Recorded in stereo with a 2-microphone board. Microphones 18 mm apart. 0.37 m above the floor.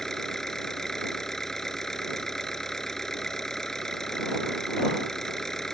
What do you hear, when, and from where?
0.0 s an engine running: 25° left (ahead or behind)